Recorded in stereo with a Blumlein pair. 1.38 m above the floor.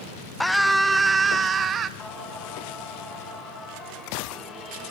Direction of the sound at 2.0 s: 20° left.